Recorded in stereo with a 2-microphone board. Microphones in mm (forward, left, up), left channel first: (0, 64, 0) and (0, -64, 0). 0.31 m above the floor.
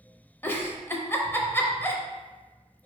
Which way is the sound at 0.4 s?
15° left (ahead or behind).